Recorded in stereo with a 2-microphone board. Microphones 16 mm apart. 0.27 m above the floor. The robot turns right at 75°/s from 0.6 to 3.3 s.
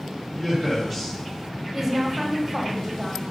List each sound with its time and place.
0.3 s a man speaking: 10° left (ahead or behind), 1.6 m; by 1.2 s 25° left (ahead or behind), 1.6 m
1.7 s a woman speaking: 20° right (ahead or behind), 0.9 m; by 3.2 s 5° right (ahead or behind), 0.9 m